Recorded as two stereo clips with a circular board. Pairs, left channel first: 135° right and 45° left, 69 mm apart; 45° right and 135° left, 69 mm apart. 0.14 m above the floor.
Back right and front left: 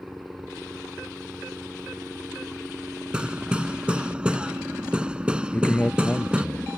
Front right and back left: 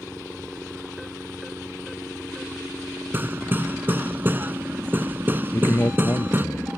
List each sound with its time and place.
0.0 s a helicopter: 90° left; by 6.8 s 85° left
3.1 s hammering: 110° left
5.5 s a man speaking: 75° right